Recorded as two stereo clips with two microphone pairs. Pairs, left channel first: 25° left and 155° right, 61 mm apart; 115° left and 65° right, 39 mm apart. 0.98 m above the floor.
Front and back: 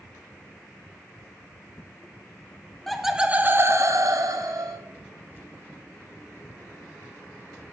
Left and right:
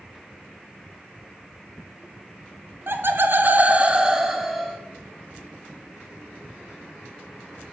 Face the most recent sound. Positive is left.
turn(degrees=-150)